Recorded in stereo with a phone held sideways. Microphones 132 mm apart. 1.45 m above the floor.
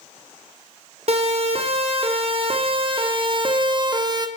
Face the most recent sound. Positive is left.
turn(degrees=-30)  # may be behind; listen again after turning